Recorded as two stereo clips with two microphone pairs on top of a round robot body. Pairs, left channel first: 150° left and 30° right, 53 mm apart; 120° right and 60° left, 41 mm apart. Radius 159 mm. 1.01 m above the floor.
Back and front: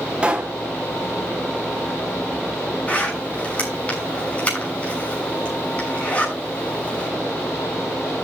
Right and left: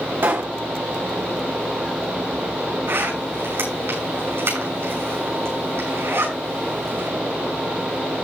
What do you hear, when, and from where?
0.2 s a pop: 30° left, 1.0 m
2.9 s a zipper: 85° left, 6.5 m